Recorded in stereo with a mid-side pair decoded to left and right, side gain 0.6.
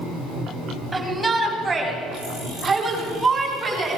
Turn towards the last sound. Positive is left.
turn(degrees=-20)